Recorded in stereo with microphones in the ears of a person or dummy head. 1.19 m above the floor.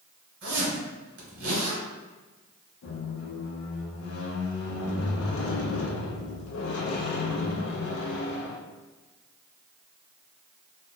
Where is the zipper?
55° right (ahead or behind), 1.7 m.